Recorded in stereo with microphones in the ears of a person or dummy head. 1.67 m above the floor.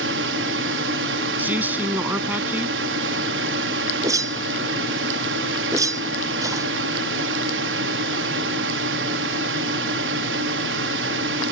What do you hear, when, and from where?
0.0 s a drone: 60° right (ahead or behind)
1.4 s a man speaking: 15° right (ahead or behind)
4.0 s a whoosh: 20° right (ahead or behind)